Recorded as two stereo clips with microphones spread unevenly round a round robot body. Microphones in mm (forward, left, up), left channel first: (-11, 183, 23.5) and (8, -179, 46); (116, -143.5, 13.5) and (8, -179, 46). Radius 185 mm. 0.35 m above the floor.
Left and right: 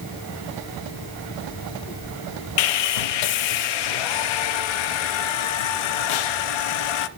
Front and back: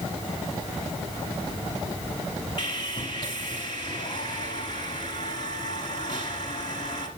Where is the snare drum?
No snare drum in this recording.